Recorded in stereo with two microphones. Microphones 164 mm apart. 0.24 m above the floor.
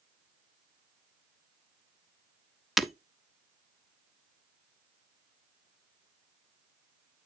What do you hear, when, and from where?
2.8 s breaking glass: centre (ahead or behind), 0.6 m